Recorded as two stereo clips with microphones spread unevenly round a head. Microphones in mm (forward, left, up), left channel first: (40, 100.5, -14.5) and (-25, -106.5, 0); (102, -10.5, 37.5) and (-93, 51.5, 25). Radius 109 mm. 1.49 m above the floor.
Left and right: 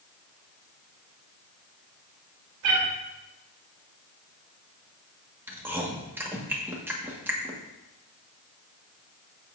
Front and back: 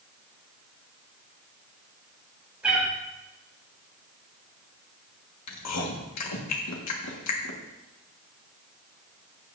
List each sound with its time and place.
2.6 s a cat meowing: 115° right, 3.5 m
5.5 s chewing: 25° right, 1.7 m